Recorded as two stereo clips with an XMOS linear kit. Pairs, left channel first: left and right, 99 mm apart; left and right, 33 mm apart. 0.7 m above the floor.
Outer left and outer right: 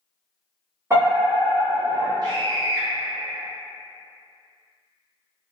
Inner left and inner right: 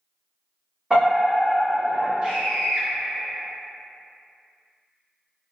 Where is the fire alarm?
30° right (ahead or behind), 1.8 m.